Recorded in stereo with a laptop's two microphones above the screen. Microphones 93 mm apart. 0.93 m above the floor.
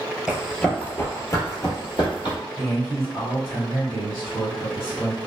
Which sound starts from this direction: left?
A man speaking, at 2.6 s.